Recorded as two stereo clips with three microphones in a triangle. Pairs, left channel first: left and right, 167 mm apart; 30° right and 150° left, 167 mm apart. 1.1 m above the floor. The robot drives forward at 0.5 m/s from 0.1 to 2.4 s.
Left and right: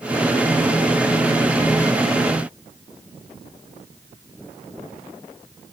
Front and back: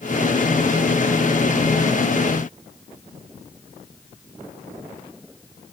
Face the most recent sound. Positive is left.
No sound to turn to.